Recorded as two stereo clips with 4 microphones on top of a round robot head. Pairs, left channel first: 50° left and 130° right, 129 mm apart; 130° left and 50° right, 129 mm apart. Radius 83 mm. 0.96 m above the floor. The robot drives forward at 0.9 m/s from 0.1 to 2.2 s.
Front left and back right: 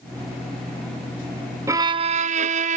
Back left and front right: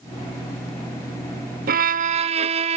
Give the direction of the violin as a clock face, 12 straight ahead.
2 o'clock.